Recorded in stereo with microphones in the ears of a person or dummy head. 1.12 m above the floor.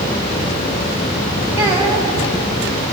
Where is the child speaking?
15° right (ahead or behind), 7 m.